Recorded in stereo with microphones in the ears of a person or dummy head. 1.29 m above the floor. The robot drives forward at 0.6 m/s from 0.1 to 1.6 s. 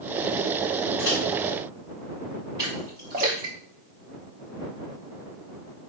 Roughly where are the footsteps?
I don't hear footsteps.